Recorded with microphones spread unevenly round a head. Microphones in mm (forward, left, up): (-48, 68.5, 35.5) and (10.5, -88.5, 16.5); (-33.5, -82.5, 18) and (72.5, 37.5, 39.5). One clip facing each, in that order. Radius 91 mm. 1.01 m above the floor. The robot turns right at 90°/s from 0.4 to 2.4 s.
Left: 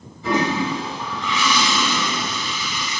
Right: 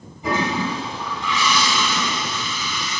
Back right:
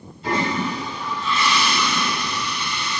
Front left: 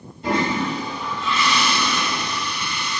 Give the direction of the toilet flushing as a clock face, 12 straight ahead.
12 o'clock.